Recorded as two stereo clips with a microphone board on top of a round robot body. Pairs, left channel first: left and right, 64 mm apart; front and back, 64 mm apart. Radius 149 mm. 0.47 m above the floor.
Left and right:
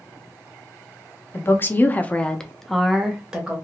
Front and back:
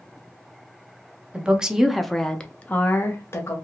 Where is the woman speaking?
115° left, 0.9 m; by 3.5 s 25° right, 1.0 m.